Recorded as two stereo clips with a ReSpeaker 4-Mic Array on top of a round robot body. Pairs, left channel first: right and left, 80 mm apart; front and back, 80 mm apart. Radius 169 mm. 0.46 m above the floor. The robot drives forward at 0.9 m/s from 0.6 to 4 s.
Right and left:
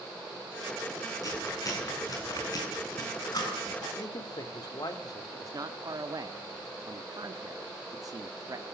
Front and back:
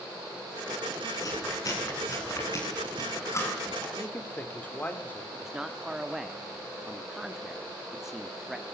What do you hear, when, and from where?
1.2 s chewing: 45° right, 8.5 m; by 3.9 s 55° right, 7 m
4.0 s a man speaking: 65° right, 2.5 m
5.3 s a man speaking: 100° left, 1.3 m